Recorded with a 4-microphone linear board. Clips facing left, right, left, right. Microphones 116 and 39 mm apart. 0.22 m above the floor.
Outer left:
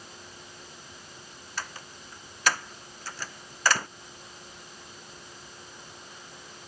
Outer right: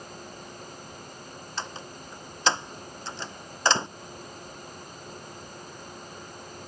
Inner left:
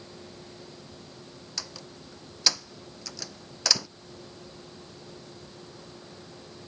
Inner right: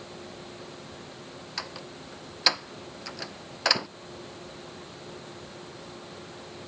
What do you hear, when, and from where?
1.6 s a door slam: 25° right (ahead or behind)